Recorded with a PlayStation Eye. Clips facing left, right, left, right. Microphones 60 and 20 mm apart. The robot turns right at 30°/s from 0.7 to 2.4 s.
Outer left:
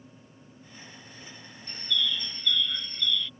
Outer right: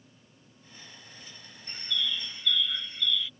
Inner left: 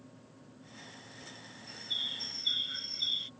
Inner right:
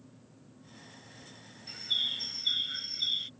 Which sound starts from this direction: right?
A bird, at 1.7 s.